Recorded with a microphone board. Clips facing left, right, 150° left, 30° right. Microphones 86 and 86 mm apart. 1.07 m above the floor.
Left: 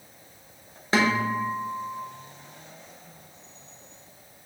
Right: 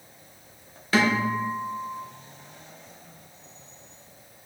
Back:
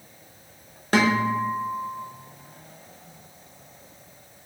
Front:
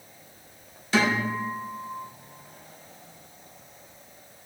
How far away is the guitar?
About 1.0 m.